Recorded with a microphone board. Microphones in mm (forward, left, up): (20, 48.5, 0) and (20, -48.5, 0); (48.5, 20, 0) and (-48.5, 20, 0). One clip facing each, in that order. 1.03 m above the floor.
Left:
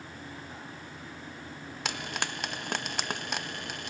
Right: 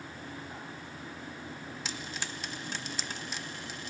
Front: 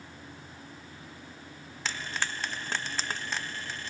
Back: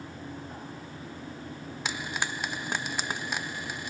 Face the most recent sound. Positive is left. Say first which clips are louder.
# left 7 dB, back 1 dB
turn(degrees=105)